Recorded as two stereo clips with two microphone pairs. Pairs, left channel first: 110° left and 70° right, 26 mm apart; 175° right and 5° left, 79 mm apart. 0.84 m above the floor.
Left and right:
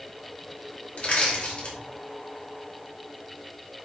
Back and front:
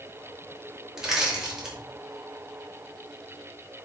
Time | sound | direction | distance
1.0 | crushing | 90° left | 2.5 m